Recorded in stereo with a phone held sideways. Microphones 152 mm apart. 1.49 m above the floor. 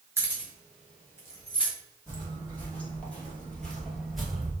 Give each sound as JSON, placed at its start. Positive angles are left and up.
{"t": 0.2, "sound": "keys jangling", "side_deg": -15, "distance_m": 2.5}
{"t": 2.1, "sound": "footsteps", "side_deg": 15, "distance_m": 2.5}